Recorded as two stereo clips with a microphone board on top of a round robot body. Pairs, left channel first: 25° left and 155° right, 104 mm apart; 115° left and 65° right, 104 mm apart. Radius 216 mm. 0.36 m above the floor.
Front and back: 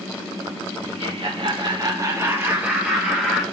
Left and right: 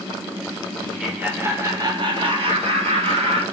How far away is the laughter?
About 2 m.